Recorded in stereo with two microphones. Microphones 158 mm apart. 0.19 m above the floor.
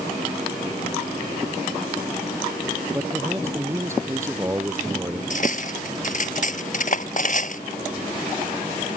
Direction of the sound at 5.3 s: 55° left (ahead or behind).